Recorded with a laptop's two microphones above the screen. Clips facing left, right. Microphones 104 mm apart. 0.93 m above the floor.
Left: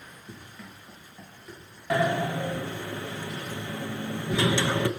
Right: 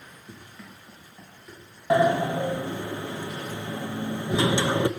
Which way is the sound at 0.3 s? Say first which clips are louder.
Even; 5° right (ahead or behind).